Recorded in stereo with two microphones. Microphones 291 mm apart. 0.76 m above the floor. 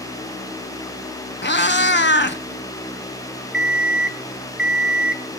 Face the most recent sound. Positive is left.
turn(degrees=35)  # may be behind; listen again after turning